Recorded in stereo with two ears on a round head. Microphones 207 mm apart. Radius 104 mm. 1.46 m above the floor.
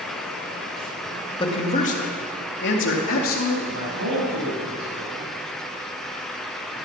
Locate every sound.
1.4 s a man speaking: 20° left (ahead or behind), 2 m; by 3.6 s 65° left (ahead or behind), 3.5 m
3.7 s a man speaking: 60° right (ahead or behind), 7 m